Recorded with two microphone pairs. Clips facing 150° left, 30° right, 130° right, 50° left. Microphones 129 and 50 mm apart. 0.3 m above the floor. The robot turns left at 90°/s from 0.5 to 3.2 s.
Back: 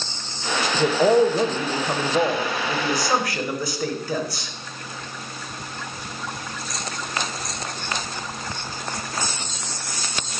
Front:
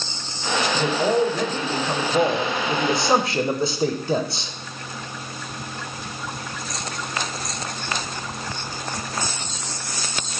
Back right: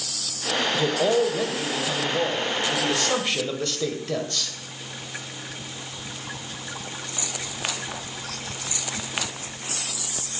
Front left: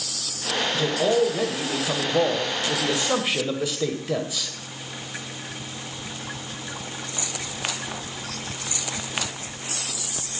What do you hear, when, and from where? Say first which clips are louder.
0.7 s a man speaking: back 5 dB, front left 1 dB; 165° right, 0.9 m; by 4.5 s 30° right, 0.9 m